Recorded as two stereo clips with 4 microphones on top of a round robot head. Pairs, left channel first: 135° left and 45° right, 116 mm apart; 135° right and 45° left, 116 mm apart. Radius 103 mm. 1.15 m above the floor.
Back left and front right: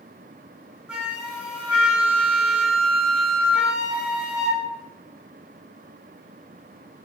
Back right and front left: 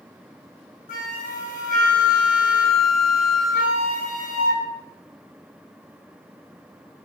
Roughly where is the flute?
Behind right.